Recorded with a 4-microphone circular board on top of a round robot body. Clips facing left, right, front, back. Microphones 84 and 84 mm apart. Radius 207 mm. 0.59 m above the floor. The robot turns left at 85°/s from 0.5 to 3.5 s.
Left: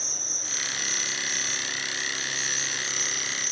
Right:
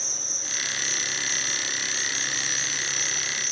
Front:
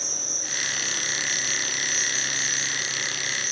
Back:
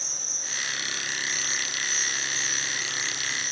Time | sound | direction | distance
0.0 | an insect | 35° left | 1.6 m